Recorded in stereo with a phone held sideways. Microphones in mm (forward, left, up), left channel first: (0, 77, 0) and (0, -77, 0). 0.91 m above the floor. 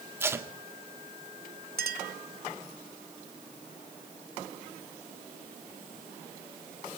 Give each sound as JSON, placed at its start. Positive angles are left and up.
{"t": 0.2, "sound": "tape being pulled", "side_deg": -15, "distance_m": 1.8}
{"t": 1.8, "sound": "a clink", "side_deg": -85, "distance_m": 1.8}